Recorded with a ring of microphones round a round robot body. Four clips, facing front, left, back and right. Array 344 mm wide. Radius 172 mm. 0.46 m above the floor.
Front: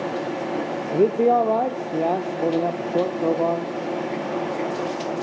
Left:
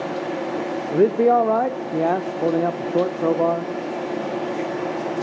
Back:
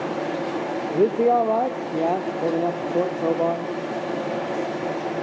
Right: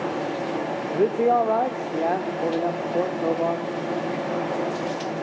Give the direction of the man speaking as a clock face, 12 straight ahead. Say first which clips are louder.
Left 4 dB, front 1 dB; 9 o'clock.